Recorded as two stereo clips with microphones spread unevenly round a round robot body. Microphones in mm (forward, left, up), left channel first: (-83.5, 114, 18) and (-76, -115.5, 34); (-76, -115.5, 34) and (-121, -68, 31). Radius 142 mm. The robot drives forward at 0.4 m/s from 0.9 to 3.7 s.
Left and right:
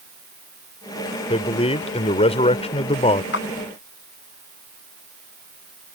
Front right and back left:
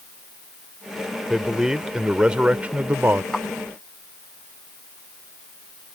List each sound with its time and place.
1.3 s a man speaking: 50° left; by 3.2 s 115° left
3.3 s a clap: 45° left